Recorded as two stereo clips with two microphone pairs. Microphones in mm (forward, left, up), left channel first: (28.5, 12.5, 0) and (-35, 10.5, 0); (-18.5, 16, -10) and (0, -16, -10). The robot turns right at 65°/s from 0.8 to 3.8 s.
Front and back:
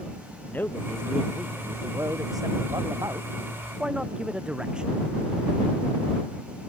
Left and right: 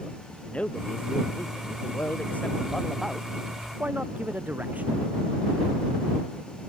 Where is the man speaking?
65° left; by 4.9 s 100° right.